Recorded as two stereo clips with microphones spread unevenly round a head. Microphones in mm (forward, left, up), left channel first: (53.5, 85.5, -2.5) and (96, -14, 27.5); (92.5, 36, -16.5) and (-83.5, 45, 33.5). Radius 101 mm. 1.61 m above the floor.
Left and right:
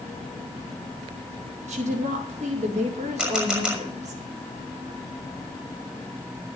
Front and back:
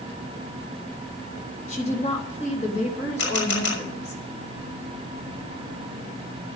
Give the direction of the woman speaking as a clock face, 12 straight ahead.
2 o'clock.